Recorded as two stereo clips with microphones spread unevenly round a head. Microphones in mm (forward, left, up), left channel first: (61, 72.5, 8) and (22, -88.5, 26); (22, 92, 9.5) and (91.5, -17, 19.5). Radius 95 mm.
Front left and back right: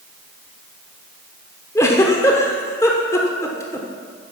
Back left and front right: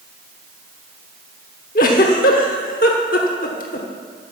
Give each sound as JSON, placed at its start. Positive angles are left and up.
{"t": 1.8, "sound": "a giggle", "azimuth_deg": 155, "distance_m": 1.0}